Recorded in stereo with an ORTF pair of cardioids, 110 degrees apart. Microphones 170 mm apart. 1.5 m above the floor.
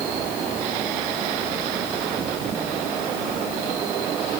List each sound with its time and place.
Only background noise.